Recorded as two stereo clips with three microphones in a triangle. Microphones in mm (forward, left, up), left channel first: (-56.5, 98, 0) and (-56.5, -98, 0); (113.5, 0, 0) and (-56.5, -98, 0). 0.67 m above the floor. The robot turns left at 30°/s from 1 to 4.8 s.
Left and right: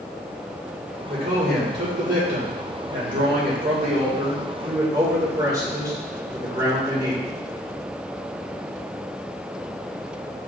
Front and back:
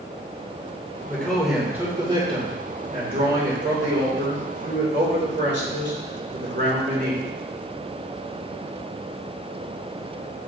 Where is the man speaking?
50° right, 2.5 m; by 7.2 s 160° right, 2.5 m.